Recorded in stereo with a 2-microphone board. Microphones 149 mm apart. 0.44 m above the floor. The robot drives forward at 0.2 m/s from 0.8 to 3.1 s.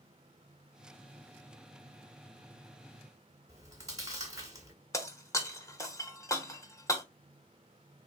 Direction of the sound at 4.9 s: 20° left (ahead or behind).